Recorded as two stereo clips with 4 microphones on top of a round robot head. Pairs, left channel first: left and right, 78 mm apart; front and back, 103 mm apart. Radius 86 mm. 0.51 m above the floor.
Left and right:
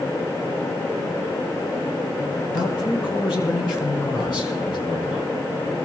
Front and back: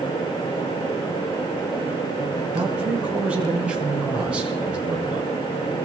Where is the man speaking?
100° left, 4.5 m.